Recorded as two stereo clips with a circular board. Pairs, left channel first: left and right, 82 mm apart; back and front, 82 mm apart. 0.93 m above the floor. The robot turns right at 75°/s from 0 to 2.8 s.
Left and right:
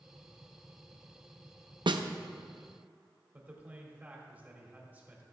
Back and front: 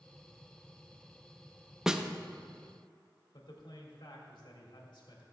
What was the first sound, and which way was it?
A snare drum, 85° right.